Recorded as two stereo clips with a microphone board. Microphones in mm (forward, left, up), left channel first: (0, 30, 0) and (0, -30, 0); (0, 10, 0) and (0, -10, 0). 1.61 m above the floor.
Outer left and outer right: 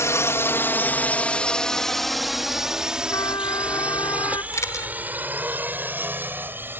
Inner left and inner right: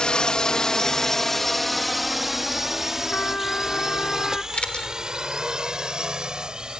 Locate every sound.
0.0 s a drone: 55° left (ahead or behind); by 6.8 s 35° right (ahead or behind)
3.1 s a trumpet: 90° left
4.5 s a camera shutter: 60° left (ahead or behind)